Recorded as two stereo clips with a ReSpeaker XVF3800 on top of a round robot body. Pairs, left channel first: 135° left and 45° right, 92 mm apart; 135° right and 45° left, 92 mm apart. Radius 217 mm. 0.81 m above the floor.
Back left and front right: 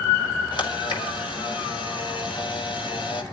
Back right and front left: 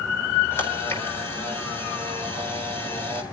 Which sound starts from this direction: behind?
A camera shutter, at 0.5 s.